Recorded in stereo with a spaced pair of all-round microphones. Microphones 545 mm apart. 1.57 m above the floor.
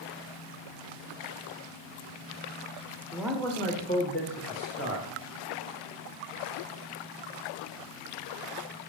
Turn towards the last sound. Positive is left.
turn(degrees=30)  # may be behind; listen again after turning